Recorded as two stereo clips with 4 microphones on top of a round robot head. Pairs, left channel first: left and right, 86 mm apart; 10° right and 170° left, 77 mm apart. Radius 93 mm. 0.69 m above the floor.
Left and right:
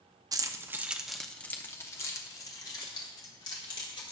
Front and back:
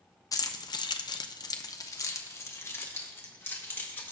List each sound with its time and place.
0.3 s keys jangling: 50° right, 0.8 m; by 4.1 s 50° left, 2.5 m